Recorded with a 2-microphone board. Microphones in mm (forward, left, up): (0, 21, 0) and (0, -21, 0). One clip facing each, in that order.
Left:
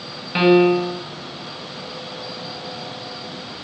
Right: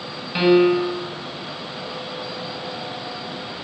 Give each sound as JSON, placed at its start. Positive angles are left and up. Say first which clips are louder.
{"t": 0.3, "sound": "a piano", "louder": "left 1 dB", "side_deg": 20, "distance_m": 1.4}